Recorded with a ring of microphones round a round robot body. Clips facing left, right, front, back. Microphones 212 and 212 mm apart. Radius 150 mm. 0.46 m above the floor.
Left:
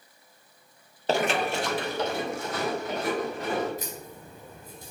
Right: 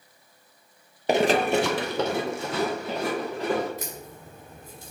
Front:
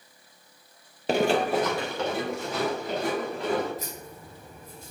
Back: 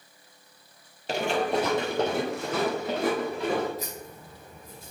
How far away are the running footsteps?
About 0.6 m.